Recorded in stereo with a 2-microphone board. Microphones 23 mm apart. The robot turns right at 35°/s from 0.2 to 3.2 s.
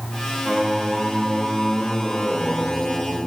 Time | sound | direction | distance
0.5 | singing | 65° right | 2 m